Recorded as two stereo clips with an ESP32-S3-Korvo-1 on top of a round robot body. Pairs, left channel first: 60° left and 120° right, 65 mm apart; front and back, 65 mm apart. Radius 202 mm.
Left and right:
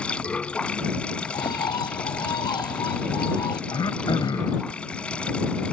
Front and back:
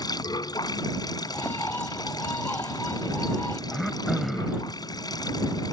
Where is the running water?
15° right.